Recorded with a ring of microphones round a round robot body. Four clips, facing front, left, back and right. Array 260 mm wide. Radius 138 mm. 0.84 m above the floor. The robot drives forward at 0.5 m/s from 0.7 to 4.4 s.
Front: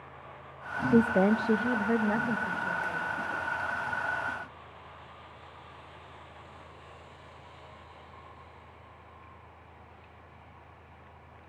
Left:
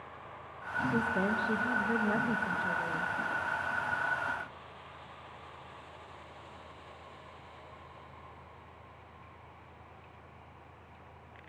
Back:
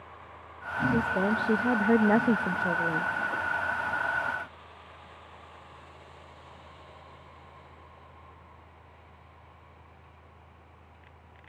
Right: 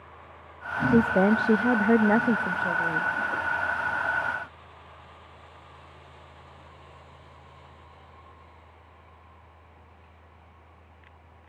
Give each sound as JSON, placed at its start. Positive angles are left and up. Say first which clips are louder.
{"t": 0.9, "sound": "a woman speaking", "louder": "right 11 dB, front 5 dB", "azimuth_deg": -55, "distance_m": 0.6}